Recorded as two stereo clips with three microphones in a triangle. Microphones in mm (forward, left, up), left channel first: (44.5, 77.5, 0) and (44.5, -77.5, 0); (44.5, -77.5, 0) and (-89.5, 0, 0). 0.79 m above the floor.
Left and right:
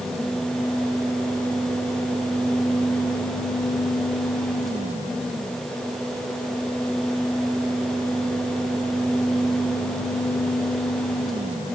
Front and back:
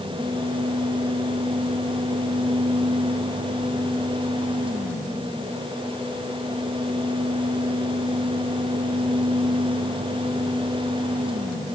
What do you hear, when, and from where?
Only background noise.